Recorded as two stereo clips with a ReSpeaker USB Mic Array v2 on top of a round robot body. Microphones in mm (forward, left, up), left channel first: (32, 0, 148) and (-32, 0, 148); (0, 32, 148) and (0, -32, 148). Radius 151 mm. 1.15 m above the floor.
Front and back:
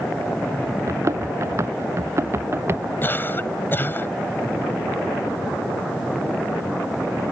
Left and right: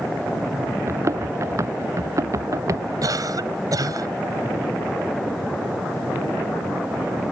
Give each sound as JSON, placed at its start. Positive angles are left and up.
{"t": 0.9, "sound": "running footsteps", "azimuth_deg": -135}
{"t": 3.0, "sound": "a cough", "azimuth_deg": -60}